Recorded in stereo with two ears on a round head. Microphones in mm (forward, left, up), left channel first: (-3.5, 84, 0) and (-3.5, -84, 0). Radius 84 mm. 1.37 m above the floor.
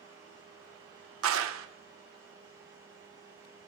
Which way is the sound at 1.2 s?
85° right.